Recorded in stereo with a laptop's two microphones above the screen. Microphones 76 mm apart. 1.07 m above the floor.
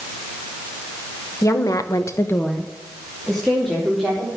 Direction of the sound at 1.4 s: 40° left (ahead or behind).